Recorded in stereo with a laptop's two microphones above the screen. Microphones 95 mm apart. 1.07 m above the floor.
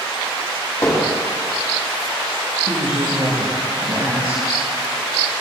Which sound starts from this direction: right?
A woman speaking, at 2.7 s.